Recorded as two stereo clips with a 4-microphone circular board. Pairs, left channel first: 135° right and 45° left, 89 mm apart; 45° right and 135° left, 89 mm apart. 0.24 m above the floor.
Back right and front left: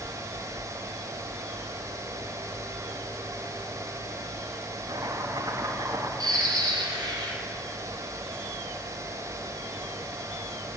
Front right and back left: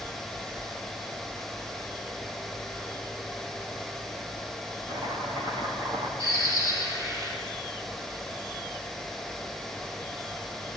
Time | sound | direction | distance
4.9 | chopping | 95° left | 9 m
6.2 | a bird | 80° left | 5.5 m